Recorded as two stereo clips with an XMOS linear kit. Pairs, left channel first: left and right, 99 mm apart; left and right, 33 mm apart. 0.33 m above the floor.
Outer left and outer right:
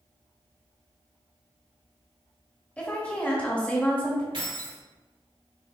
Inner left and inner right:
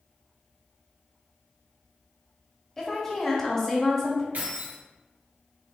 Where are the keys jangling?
70° right (ahead or behind), 1.9 m.